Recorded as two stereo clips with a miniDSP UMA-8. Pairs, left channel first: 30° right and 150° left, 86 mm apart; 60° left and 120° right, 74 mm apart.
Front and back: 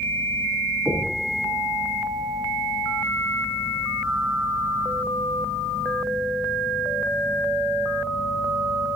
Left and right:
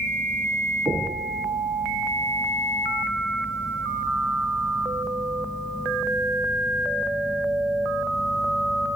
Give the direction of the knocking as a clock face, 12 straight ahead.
5 o'clock.